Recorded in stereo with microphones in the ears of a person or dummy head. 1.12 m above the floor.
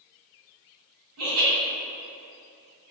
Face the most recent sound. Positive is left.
turn(degrees=-85)